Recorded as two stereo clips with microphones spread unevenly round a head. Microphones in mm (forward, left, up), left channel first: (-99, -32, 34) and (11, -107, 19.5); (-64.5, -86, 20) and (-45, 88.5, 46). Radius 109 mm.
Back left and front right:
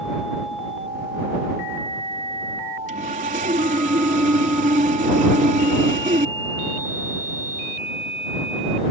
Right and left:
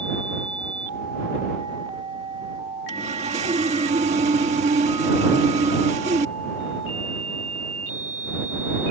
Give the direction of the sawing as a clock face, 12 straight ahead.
11 o'clock.